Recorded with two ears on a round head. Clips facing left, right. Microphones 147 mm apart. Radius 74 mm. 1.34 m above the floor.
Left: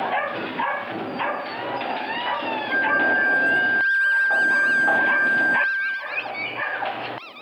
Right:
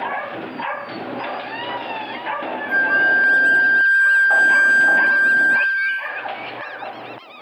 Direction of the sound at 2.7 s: 40° right (ahead or behind).